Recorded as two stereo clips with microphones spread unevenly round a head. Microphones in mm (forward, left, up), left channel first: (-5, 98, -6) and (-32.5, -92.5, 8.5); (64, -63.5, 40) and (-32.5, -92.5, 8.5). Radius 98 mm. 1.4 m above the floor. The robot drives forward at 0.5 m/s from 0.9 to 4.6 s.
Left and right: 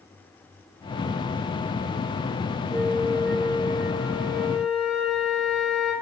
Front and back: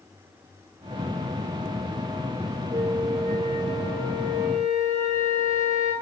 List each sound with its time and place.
2.7 s a flute: 175° left, 0.9 m; by 5.9 s straight behind, 1.6 m